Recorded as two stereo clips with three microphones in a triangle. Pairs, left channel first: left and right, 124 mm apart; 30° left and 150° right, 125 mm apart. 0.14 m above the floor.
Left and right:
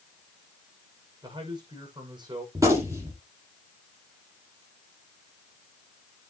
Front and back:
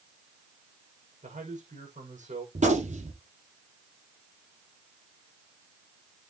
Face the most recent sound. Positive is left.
turn(degrees=-155)